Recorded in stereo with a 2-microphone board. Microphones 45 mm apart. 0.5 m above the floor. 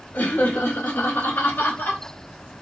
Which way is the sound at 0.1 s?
35° left (ahead or behind).